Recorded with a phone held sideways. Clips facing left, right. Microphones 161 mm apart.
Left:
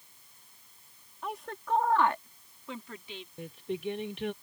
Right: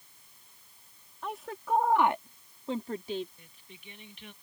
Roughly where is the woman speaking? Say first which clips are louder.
Right 1 dB; centre.